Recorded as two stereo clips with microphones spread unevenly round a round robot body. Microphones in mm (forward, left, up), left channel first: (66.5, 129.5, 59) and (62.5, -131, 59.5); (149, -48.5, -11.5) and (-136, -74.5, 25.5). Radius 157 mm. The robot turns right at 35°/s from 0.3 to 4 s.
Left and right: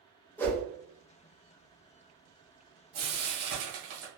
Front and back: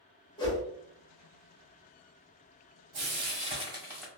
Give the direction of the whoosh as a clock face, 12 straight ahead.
11 o'clock.